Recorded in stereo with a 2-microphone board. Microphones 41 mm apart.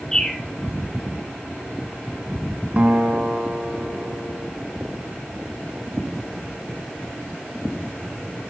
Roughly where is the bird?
Centre.